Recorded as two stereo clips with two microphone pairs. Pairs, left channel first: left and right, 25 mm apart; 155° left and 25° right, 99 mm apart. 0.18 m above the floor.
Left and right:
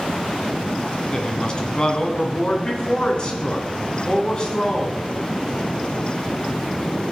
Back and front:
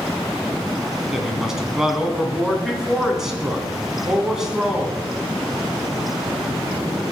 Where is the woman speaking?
55° left, 1.5 m.